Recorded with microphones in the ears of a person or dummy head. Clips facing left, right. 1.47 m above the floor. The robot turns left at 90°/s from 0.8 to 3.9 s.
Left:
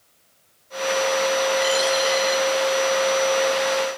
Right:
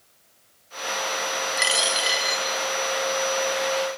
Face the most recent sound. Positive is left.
turn(degrees=30)